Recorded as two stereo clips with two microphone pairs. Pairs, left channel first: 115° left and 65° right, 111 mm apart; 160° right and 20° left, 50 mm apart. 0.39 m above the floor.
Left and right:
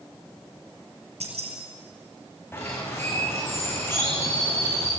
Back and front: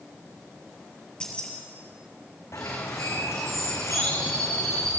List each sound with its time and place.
1.2 s keys jangling: 85° right, 5 m
2.5 s a bird: 175° right, 6 m